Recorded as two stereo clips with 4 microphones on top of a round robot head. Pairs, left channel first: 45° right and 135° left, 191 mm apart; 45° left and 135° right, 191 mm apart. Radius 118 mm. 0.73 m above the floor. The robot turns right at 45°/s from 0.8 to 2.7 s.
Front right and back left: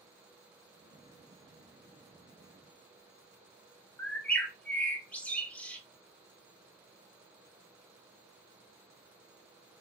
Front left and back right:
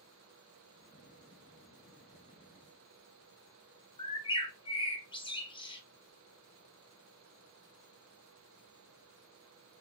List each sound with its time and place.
4.0 s a bird: 30° left, 1.1 m